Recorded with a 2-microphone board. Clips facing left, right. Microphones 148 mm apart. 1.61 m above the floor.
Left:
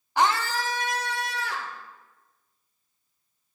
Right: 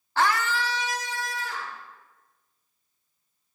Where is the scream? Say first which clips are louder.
Left 1 dB; 15° left (ahead or behind), 0.7 m; by 1.8 s 75° left (ahead or behind), 1.5 m.